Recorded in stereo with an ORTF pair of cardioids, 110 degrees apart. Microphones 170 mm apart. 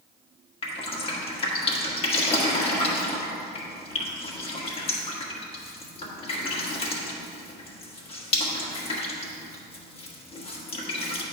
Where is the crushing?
No crushing in this recording.